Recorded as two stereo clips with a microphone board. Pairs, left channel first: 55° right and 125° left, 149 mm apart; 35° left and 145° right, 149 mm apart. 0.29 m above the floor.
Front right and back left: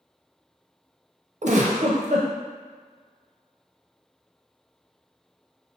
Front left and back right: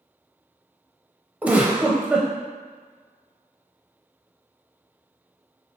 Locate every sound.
1.4 s a giggle: 135° left, 0.5 m